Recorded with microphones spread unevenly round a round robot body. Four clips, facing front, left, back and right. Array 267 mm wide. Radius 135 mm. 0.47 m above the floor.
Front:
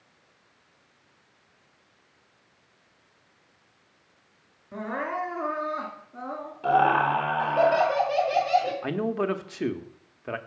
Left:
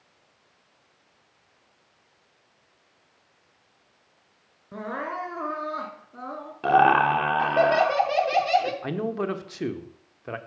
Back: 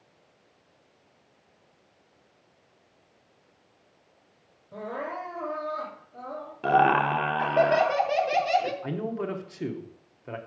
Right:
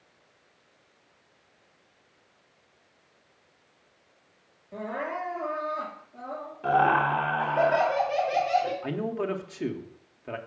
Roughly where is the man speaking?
Ahead left.